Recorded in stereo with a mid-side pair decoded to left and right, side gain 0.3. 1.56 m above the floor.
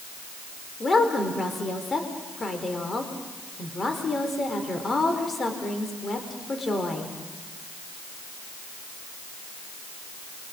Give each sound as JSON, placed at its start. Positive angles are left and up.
{"t": 0.8, "sound": "a woman speaking", "azimuth_deg": 45, "distance_m": 4.0}